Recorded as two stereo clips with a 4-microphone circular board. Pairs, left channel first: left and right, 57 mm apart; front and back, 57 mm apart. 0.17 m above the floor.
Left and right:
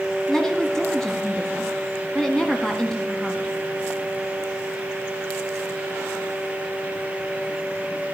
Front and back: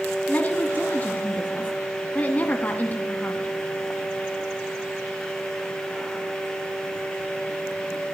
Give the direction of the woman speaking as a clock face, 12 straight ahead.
11 o'clock.